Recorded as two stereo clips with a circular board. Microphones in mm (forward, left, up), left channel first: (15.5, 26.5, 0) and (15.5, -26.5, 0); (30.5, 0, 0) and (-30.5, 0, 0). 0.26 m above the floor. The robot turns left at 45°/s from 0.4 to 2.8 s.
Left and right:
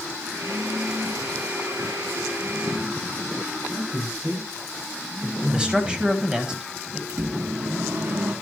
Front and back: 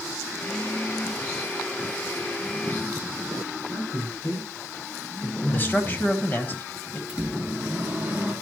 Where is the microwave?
110° right, 2.5 m.